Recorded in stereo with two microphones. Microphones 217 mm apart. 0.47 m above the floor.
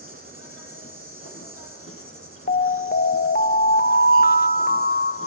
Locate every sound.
0.0 s an insect: 80° left, 6 m
2.5 s an alarm: 45° left (ahead or behind), 0.6 m